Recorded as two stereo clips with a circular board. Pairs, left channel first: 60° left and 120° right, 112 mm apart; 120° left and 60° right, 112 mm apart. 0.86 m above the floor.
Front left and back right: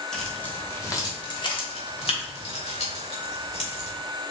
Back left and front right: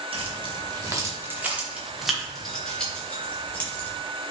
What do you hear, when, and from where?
0.1 s keys jangling: 25° right, 1.0 m; by 3.9 s 50° left, 2 m